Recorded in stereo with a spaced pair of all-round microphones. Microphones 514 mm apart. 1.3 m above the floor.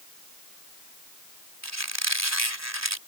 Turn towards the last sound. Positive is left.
turn(degrees=-30)  # may be behind; listen again after turning